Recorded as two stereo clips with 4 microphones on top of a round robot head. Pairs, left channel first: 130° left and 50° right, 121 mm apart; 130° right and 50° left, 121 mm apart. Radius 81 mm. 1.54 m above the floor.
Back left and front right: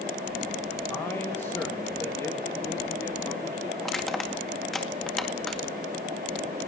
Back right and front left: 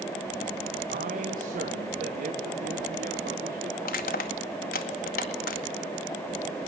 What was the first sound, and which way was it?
A man speaking, 60° left.